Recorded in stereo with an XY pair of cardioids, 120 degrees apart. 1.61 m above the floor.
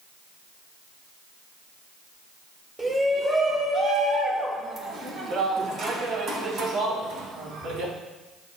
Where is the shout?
10° right, 1.7 m; by 7.9 s 65° right, 3 m.